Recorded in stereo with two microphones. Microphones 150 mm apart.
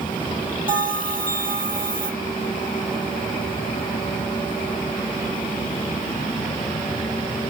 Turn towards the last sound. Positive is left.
turn(degrees=-70)  # may be behind; listen again after turning